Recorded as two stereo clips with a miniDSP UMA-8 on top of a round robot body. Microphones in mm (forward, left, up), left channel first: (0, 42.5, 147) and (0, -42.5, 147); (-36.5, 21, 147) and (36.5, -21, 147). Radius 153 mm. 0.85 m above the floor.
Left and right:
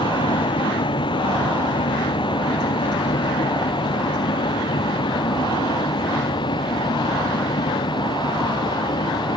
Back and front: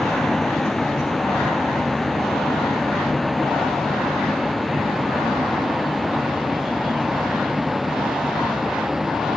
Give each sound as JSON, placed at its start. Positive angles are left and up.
{"t": 0.0, "sound": "a vehicle", "azimuth_deg": 65}